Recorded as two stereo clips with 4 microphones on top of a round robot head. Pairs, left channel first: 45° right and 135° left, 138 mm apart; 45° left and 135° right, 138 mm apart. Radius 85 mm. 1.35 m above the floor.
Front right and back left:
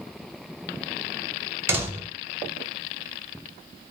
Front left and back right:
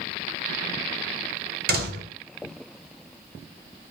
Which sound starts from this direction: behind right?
A door slam, at 1.7 s.